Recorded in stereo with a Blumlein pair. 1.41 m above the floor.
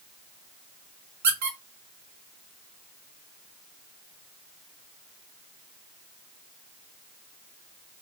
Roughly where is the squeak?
Ahead right.